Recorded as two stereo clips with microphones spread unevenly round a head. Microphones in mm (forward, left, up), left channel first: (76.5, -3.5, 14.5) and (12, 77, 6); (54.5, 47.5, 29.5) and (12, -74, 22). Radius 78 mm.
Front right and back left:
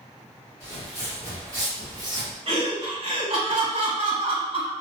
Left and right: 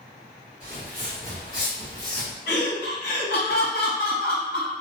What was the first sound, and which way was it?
Footsteps, 175° left.